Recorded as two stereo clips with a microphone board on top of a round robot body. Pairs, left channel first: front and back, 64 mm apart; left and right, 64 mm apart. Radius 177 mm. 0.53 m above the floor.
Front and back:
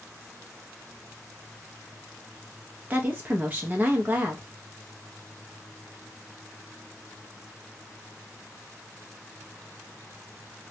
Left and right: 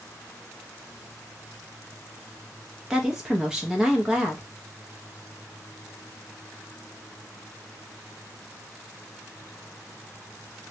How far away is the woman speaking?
About 0.8 m.